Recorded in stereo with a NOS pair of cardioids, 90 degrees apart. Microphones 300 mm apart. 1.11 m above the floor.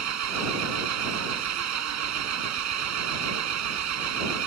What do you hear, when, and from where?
0.0 s an engine running: 60° right